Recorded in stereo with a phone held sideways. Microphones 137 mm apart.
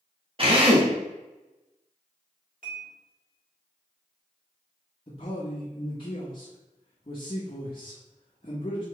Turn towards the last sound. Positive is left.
turn(degrees=40)  # may be behind; listen again after turning